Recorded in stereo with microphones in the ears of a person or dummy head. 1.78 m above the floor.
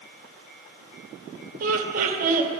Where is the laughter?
50° right (ahead or behind), 1.0 m.